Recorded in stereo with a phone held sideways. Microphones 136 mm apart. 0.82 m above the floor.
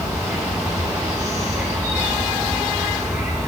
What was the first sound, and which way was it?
An insect, 20° right (ahead or behind).